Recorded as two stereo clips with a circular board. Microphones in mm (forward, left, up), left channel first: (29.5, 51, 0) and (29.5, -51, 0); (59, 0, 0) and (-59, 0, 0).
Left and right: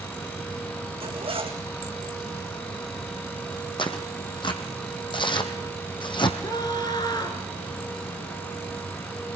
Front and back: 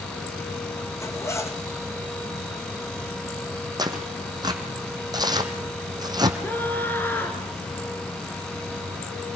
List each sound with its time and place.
1.0 s a zipper: 65° right, 3.5 m
3.8 s tearing paper: 125° left, 2.5 m
6.4 s a scream: 65° left, 1.9 m